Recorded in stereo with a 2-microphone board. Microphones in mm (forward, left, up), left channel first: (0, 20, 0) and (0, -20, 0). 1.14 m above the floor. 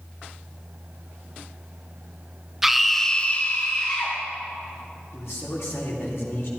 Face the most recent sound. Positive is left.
turn(degrees=80)